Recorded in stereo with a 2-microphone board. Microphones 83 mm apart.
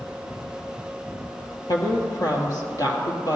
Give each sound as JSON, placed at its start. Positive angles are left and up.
{"t": 1.7, "sound": "a woman speaking", "side_deg": 55, "distance_m": 2.5}